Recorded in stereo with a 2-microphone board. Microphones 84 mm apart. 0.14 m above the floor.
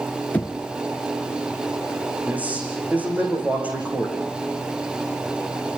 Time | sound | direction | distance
0.3 | knocking | 20° left (ahead or behind) | 1.1 m
2.3 | a man speaking | 15° right (ahead or behind) | 8.5 m